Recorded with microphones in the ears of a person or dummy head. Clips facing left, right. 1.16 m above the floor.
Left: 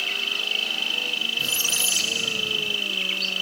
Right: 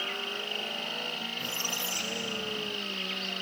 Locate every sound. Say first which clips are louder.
0.0 s an insect: even; 50° left (ahead or behind)
1.4 s a squeak: left 2 dB; 30° left (ahead or behind)